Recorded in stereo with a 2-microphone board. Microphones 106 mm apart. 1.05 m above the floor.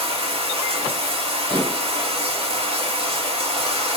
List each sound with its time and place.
0.0 s running water: 60° right (ahead or behind), 1.3 m
1.5 s dishes clattering: 45° right (ahead or behind), 3.5 m